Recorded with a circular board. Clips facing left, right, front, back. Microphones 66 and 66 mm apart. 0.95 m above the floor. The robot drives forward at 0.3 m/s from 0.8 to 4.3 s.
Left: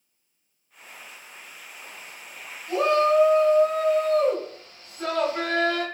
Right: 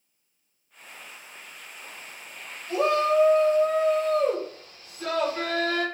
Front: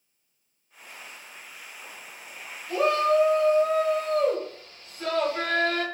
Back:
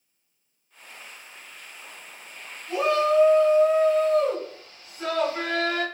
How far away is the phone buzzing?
No phone buzzing in this recording.